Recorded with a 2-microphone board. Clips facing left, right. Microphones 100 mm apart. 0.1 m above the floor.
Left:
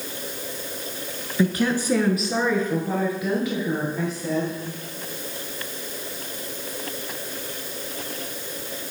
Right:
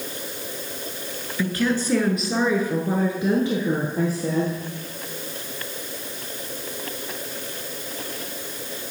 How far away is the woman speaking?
About 1.1 m.